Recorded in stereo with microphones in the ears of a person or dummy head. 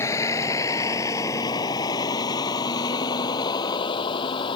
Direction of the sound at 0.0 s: 15° left (ahead or behind).